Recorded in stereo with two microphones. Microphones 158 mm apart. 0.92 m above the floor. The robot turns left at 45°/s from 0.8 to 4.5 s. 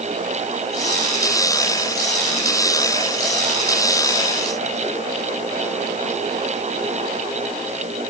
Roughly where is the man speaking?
I don't hear a man speaking.